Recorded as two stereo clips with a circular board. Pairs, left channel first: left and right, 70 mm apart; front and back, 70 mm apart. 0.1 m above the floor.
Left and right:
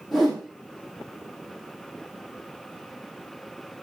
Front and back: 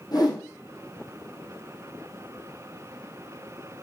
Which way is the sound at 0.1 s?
Straight ahead.